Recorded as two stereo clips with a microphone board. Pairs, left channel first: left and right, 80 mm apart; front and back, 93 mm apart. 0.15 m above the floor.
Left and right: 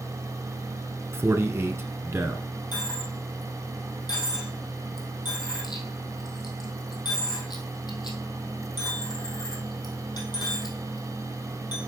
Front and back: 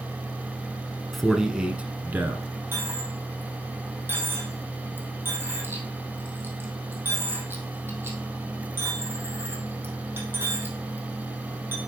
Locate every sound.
1.1 s a man speaking: 85° right, 1.2 m; by 2.5 s 130° right, 1.4 m
2.7 s a dropped coin: 115° left, 2.5 m